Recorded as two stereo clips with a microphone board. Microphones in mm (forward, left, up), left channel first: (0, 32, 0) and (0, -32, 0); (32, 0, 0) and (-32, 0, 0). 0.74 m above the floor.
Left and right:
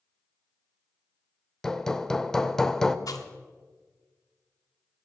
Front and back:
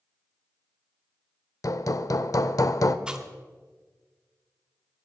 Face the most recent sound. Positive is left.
turn(degrees=105)